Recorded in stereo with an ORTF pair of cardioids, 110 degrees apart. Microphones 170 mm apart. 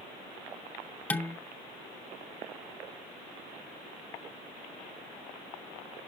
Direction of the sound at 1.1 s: 10° left.